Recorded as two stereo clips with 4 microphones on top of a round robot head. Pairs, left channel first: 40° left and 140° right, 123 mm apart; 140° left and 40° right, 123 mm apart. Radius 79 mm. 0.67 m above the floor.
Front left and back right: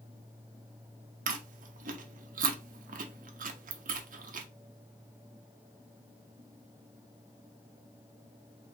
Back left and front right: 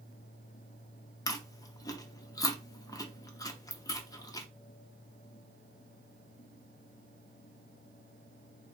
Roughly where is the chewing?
Behind right.